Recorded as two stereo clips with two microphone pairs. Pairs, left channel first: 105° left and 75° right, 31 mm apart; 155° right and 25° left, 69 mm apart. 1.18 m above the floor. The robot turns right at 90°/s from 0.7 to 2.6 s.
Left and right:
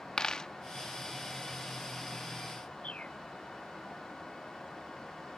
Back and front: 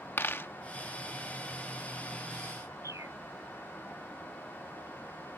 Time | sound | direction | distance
0.2 | a dropped coin | 155° left | ?
2.8 | a bird | 60° left | ?